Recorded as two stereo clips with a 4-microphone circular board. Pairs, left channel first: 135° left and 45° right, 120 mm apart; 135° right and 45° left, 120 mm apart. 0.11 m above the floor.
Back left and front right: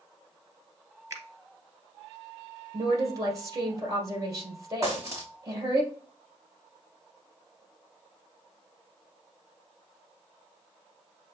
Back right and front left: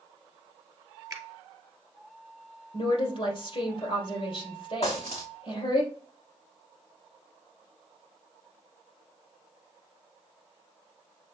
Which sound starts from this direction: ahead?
A finger snap, at 1.1 s.